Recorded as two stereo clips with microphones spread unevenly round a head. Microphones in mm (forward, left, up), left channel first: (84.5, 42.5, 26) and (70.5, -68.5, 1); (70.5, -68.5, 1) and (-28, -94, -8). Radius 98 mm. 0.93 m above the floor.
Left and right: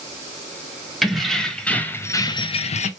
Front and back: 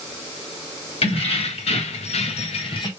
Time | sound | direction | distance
1.0 | keys jangling | 10° right | 1.3 m